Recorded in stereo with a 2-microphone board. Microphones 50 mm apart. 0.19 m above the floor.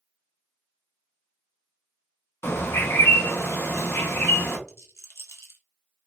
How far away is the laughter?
I don't hear laughter.